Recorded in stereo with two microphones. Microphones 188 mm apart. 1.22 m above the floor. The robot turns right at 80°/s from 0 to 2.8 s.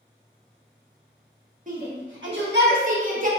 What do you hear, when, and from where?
1.7 s a shout: 45° right (ahead or behind), 1.1 m